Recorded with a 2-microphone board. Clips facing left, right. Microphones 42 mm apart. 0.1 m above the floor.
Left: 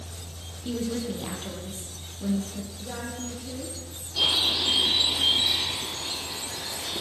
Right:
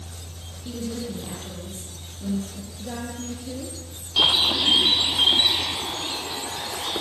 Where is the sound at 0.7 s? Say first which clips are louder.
Left 2 dB; 30° left (ahead or behind), 4 m.